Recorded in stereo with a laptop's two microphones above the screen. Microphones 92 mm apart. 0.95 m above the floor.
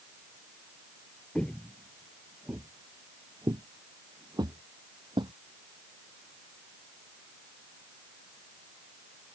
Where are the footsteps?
15° left (ahead or behind); by 5.3 s 55° right (ahead or behind).